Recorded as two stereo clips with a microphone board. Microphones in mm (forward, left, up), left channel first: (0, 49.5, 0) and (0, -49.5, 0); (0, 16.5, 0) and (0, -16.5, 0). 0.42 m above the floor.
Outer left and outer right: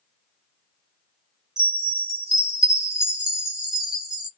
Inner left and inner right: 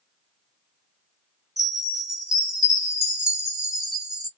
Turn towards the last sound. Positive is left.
turn(degrees=-5)  # may be behind; listen again after turning